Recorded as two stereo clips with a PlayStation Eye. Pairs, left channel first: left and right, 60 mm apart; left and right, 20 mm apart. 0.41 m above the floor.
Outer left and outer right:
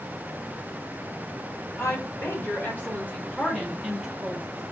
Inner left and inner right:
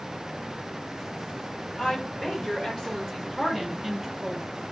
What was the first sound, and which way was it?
A woman speaking, 50° left (ahead or behind).